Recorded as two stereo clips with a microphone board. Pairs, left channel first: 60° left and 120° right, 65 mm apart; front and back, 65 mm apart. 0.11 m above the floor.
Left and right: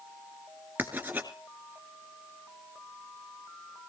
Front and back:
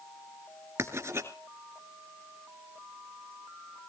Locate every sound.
0.8 s writing: 165° right, 2 m